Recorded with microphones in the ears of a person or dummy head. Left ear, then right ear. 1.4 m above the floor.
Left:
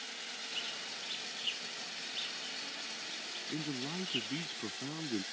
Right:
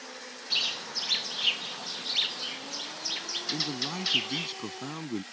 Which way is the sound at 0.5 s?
65° right (ahead or behind).